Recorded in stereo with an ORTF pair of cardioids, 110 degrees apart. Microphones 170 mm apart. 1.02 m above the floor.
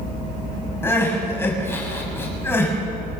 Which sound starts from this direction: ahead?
Crying, at 0.8 s.